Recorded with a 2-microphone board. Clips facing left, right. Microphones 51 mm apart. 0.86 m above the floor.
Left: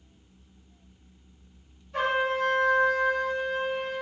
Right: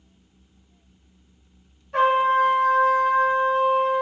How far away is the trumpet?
About 1.4 m.